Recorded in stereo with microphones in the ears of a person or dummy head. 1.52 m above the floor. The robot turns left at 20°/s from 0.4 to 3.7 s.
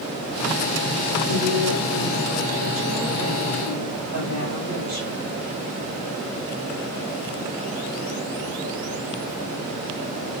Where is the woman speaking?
55° right, 6 m; by 5.3 s 105° right, 6 m.